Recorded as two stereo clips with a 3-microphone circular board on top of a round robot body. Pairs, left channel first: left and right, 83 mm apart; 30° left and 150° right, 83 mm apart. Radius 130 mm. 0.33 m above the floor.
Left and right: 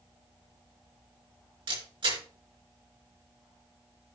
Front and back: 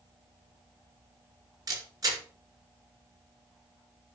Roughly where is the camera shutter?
Right.